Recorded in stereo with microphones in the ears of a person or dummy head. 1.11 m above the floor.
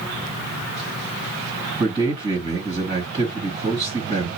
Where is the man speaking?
20° right (ahead or behind), 2.0 m.